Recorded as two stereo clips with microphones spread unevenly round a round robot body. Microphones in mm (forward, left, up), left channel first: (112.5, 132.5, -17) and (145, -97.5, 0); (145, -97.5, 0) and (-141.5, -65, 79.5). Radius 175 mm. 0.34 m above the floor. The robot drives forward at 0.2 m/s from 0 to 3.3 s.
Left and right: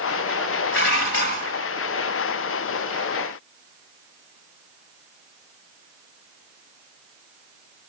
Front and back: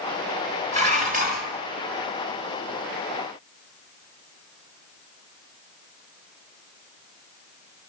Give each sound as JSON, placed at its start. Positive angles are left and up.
{"t": 0.7, "sound": "dishes clattering", "azimuth_deg": 95, "distance_m": 1.2}